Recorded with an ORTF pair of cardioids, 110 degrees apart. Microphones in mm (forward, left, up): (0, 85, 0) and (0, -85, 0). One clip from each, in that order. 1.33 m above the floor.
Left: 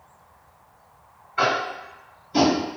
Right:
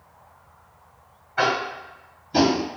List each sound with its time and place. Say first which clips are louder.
1.4 s tapping: even; 30° right, 1.0 m